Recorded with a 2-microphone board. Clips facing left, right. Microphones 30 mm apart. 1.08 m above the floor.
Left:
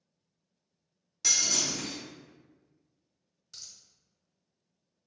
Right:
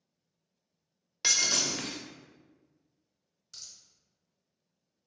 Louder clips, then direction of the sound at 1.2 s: Right 1 dB; 35° right (ahead or behind).